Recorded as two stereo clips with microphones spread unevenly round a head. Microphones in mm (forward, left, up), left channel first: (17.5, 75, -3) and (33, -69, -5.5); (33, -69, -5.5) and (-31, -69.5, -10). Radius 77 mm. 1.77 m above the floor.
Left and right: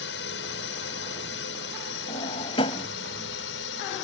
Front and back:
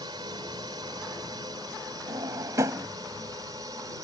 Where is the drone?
120° left; by 4.0 s 115° left.